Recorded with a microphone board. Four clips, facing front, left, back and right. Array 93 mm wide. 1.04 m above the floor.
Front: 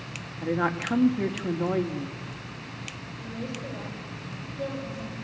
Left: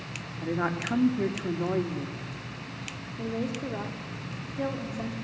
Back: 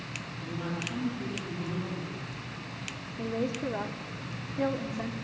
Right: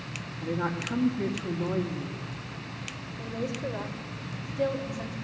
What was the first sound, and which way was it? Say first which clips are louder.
A woman speaking: left 1 dB, front 10 dB; 30° left.